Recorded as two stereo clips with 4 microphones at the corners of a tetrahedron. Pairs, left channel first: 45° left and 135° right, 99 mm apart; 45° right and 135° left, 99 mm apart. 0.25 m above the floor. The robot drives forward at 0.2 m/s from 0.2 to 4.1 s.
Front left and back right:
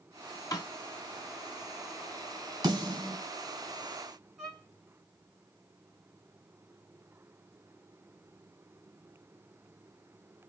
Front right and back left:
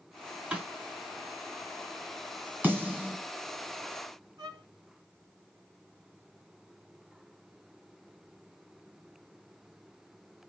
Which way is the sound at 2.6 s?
160° right.